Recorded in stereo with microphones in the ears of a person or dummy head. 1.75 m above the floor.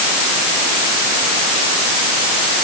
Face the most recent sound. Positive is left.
No sound to turn to.